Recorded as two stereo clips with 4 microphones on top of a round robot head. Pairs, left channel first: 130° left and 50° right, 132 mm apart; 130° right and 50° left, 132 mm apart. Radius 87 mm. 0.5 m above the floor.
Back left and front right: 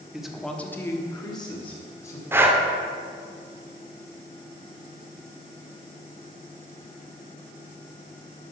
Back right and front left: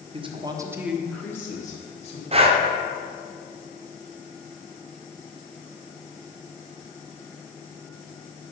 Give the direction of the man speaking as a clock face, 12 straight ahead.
11 o'clock.